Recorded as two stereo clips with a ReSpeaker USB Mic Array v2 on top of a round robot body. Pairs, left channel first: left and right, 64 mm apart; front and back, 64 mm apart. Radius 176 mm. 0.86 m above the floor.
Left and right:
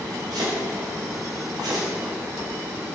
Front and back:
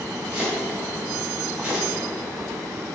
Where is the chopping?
105° right, 2.5 m.